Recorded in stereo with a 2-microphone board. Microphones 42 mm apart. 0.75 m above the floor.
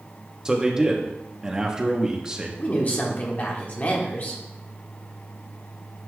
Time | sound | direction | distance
0.5 | a man speaking | 15° right (ahead or behind) | 1.1 m
2.6 | a woman speaking | 40° left (ahead or behind) | 1.6 m